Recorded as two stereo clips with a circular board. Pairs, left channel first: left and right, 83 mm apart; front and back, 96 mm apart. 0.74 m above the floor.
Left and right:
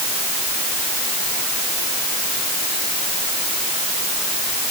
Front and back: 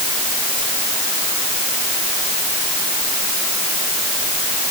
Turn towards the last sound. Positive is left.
No sound to turn to.